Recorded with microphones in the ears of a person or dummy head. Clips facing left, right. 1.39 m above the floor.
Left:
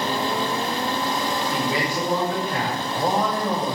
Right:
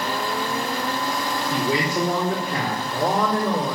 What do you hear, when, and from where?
1.5 s a man speaking: 90° right, 4.5 m; by 3.8 s 75° right (ahead or behind), 5 m